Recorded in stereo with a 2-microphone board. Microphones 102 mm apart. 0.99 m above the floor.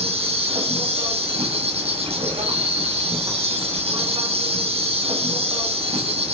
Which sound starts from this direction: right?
An insect, at 0.0 s.